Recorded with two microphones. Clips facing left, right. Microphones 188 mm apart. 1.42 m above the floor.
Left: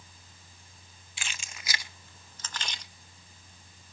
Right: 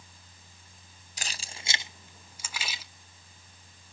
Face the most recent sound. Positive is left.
turn(degrees=-5)  # may be behind; listen again after turning